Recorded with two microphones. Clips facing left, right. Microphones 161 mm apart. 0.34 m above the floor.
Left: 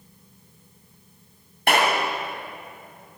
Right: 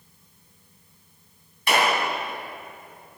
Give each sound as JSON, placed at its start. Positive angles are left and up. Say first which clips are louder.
{"t": 1.7, "sound": "a clap", "louder": "left 1 dB", "side_deg": 60, "distance_m": 2.5}